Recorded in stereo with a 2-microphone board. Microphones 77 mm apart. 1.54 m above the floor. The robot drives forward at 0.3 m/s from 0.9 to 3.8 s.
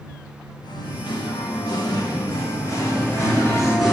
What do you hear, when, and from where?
0.6 s singing: 65° left (ahead or behind), 0.9 m; by 3.8 s 35° left (ahead or behind), 1.3 m
2.8 s singing: 40° left (ahead or behind), 2 m